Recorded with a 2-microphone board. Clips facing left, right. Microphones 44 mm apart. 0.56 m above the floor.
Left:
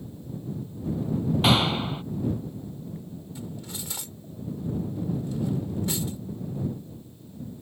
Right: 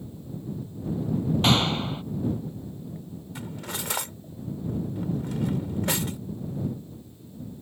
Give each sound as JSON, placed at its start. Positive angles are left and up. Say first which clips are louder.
{"t": 1.4, "sound": "a clap", "louder": "left 1 dB", "side_deg": 5}
{"t": 3.4, "sound": "cutlery clinking", "louder": "right 4 dB", "side_deg": -65}